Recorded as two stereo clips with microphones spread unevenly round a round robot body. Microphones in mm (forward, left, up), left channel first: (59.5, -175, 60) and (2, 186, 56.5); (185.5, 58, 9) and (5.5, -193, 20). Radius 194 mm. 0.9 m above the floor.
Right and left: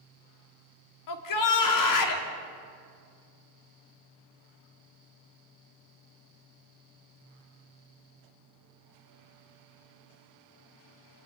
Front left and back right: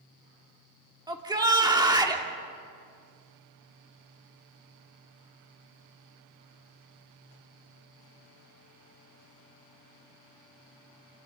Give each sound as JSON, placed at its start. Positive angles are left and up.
{"t": 1.1, "sound": "a shout", "azimuth_deg": -50, "distance_m": 2.5}